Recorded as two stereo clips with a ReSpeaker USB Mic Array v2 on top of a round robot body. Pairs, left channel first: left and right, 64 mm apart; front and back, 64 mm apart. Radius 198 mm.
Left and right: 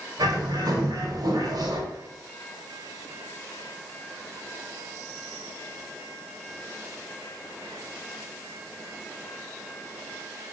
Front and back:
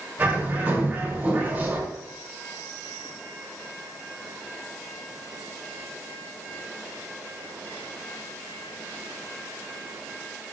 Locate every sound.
0.2 s a bird: 115° right, 1.9 m